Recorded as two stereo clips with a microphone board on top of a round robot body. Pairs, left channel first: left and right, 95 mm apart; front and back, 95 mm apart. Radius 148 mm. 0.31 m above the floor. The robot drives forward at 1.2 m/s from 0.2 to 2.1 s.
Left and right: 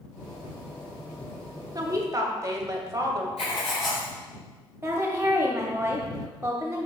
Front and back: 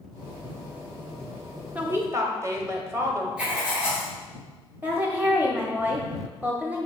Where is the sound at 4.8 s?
125° right, 1.0 m.